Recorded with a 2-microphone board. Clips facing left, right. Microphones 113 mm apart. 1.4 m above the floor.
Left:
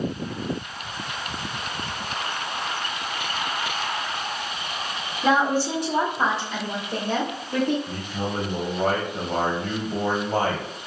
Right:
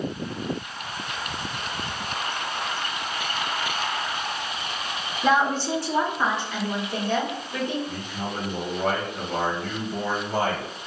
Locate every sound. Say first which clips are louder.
5.2 s a woman speaking: left 1 dB; centre (ahead or behind), 1.1 m; by 7.8 s 50° left (ahead or behind), 2.5 m
7.9 s a man speaking: left 2 dB; 45° left (ahead or behind), 1.2 m